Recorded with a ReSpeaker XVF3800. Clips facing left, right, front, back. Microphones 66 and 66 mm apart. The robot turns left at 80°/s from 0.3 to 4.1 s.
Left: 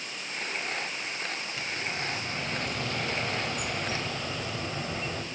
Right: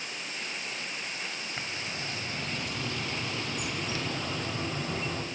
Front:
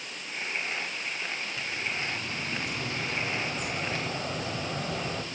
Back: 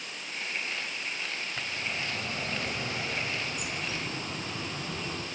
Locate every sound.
1.6 s a bird: 140° right, 3 m; by 5.2 s 20° left, 3 m